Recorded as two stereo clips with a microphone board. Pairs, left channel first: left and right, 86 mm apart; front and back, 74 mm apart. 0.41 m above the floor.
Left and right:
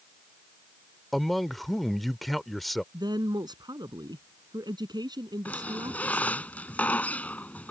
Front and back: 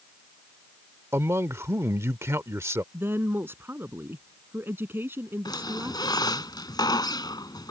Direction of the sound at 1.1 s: Straight behind.